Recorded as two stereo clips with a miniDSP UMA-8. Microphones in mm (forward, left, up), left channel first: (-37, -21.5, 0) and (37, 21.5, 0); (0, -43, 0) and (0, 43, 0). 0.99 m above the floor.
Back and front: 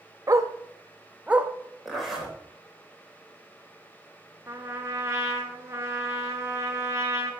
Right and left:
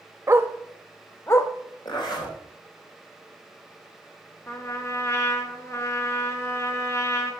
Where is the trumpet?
30° right, 1.4 m.